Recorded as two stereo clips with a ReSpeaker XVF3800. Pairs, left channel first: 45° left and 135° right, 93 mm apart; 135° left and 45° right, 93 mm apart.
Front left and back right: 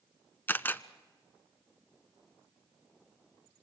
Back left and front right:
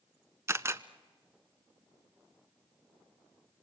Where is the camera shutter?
10° right, 0.7 m.